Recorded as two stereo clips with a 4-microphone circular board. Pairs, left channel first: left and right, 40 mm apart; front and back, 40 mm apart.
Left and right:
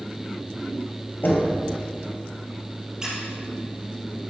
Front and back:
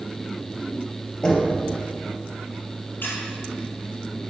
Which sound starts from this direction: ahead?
A squeak, at 3.0 s.